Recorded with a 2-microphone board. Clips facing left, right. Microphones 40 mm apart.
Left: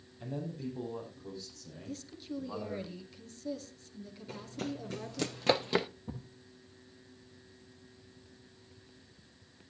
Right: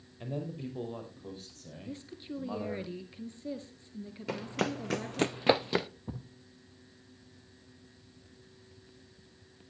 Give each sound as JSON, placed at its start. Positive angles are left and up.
{"t": 0.2, "sound": "a man speaking", "side_deg": -35, "distance_m": 5.5}
{"t": 1.9, "sound": "a woman speaking", "side_deg": -25, "distance_m": 2.0}
{"t": 4.3, "sound": "running footsteps", "side_deg": -75, "distance_m": 1.0}
{"t": 6.1, "sound": "a thud", "side_deg": -15, "distance_m": 1.2}